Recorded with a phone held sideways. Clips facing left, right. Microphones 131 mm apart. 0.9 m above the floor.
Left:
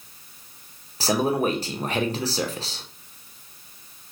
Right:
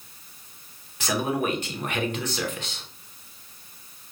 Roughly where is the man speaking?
Left.